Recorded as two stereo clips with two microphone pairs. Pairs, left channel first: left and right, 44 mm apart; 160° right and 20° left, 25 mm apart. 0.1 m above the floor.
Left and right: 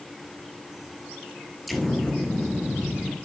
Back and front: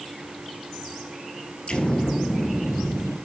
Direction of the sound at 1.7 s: Straight behind.